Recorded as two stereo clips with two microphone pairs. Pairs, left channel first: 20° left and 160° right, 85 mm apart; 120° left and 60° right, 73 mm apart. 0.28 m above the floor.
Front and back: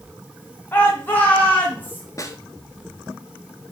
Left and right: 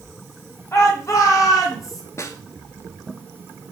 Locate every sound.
0.7 s a shout: 75° left, 1.9 m; by 2.0 s 90° left, 3 m
2.2 s a snare drum: 70° left, 0.9 m